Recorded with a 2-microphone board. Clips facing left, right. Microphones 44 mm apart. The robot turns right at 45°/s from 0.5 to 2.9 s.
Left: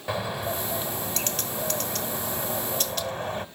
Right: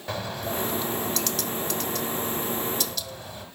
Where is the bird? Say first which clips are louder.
Left 2 dB; 10° left, 1.3 m; by 3.5 s 120° left, 1.3 m.